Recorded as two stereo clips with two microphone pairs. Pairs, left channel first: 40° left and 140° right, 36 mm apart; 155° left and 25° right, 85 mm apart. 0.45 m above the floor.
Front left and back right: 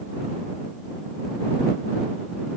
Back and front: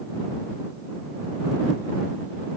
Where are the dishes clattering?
I don't hear dishes clattering.